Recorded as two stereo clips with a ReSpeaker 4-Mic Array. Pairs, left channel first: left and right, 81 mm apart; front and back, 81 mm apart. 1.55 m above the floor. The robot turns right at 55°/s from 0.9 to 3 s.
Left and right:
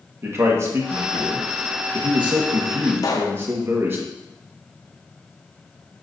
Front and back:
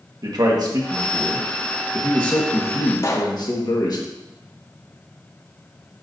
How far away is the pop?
About 0.8 m.